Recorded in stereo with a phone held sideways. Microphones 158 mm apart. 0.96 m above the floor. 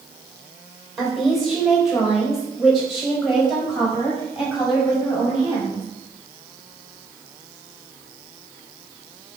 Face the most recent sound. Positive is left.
turn(degrees=-5)  # may be behind; listen again after turning